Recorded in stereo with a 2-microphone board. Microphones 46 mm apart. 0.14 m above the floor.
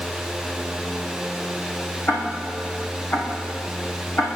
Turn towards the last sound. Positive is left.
turn(degrees=40)  # may be behind; listen again after turning